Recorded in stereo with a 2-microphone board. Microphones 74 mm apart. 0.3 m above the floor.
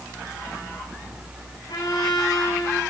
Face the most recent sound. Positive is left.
turn(degrees=75)  # may be behind; listen again after turning